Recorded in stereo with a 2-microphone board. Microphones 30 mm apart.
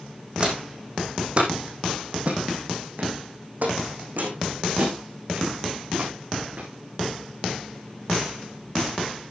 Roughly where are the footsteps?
Right.